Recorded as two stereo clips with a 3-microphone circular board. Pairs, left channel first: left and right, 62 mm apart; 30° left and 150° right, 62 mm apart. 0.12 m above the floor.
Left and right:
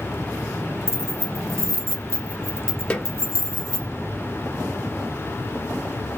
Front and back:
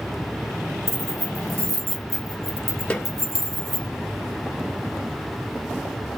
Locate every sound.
0.9 s keys jangling: 60° right, 2.5 m
2.9 s a snare drum: 50° left, 1.5 m